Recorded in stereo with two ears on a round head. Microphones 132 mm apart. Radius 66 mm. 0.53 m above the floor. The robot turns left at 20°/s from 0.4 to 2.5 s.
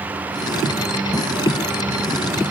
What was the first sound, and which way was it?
Only background noise.